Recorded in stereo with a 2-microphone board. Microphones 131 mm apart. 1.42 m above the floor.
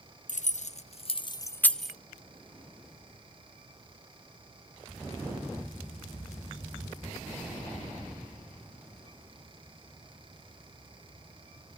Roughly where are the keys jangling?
Left.